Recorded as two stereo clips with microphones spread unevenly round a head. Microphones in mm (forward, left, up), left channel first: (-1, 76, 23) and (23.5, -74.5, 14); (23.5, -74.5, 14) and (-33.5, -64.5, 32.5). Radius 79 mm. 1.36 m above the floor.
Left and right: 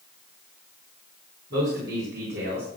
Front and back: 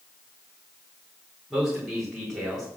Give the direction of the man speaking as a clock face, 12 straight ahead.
4 o'clock.